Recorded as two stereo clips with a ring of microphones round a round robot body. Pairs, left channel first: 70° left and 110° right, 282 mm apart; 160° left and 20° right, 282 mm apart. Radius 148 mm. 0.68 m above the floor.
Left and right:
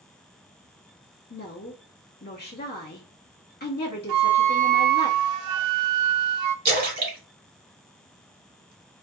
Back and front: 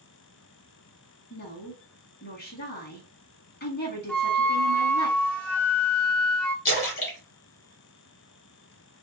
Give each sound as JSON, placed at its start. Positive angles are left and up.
{"t": 1.3, "sound": "a woman speaking", "azimuth_deg": 115, "distance_m": 1.5}
{"t": 4.1, "sound": "a flute", "azimuth_deg": -120, "distance_m": 0.5}
{"t": 6.7, "sound": "a splash", "azimuth_deg": -165, "distance_m": 1.5}